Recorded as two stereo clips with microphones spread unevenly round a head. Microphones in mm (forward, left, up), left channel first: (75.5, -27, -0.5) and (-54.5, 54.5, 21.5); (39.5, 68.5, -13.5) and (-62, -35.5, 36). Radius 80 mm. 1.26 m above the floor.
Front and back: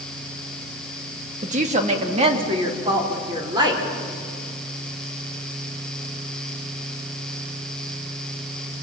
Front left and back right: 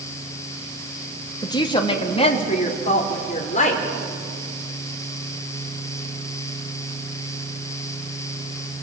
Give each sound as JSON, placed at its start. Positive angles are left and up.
{"t": 1.4, "sound": "a woman speaking", "azimuth_deg": 105, "distance_m": 2.5}